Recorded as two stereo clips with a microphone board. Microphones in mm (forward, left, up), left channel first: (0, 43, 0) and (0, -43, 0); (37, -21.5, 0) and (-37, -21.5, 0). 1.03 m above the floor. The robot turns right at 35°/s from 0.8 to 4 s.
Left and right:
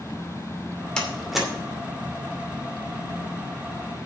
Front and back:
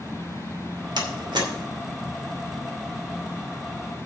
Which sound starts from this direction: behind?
A door slam, at 1.0 s.